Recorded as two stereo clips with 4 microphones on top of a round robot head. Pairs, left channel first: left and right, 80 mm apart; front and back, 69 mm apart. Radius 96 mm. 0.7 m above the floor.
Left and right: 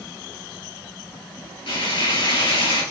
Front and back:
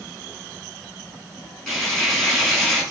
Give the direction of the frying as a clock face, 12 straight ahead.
9 o'clock.